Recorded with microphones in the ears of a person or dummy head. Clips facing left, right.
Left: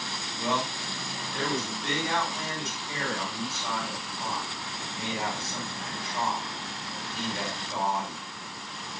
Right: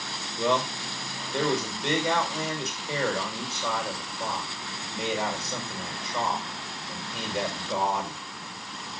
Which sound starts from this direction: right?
A man speaking, at 0.4 s.